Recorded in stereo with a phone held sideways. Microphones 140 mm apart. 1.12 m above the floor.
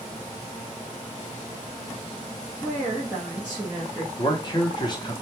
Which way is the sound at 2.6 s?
5° right (ahead or behind).